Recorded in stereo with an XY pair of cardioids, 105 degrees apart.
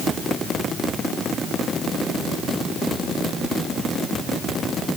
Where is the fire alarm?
I don't hear a fire alarm.